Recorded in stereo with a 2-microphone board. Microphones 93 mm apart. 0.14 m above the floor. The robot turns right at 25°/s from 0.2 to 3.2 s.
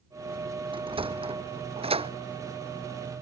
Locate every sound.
0.7 s a sliding door: 60° right (ahead or behind); by 2.1 s 80° right